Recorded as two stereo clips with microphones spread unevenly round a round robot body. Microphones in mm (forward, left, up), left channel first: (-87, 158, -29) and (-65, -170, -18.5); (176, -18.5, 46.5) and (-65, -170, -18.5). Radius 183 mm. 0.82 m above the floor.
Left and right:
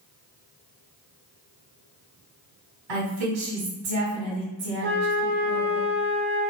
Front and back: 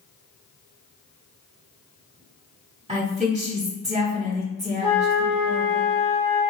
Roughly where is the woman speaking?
Right.